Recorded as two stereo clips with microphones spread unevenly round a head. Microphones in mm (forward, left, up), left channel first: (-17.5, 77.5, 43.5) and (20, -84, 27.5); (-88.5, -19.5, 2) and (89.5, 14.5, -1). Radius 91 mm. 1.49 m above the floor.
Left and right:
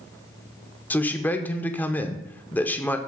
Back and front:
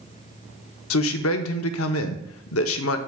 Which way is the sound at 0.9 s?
175° right.